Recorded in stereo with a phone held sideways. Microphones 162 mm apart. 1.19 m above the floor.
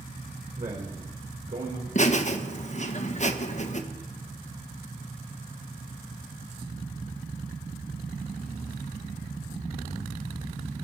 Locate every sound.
0.6 s a man speaking: 55° right (ahead or behind), 3.5 m; by 1.9 s 60° right (ahead or behind), 4.5 m
1.9 s laughter: 45° left (ahead or behind), 1.4 m